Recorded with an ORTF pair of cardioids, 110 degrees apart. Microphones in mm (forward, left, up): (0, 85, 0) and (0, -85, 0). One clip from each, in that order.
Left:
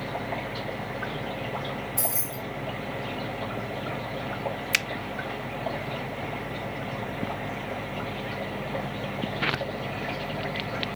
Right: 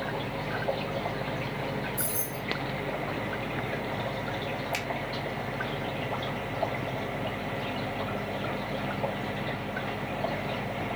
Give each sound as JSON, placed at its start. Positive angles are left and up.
{"t": 2.0, "sound": "keys jangling", "azimuth_deg": 60, "distance_m": 3.5}
{"t": 4.7, "sound": "a finger snap", "azimuth_deg": 60, "distance_m": 0.8}